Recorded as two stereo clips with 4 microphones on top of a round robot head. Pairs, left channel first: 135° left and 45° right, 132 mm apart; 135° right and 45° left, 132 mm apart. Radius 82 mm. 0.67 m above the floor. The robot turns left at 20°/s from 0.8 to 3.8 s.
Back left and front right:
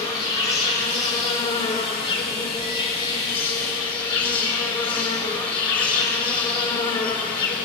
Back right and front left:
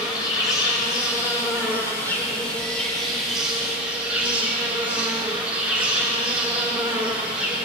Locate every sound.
0.0 s an insect: straight behind, 1.8 m; by 7.7 s 120° left, 1.8 m